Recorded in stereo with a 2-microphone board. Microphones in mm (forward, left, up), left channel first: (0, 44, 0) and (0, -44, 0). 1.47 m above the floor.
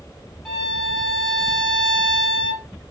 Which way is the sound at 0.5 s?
5° left (ahead or behind).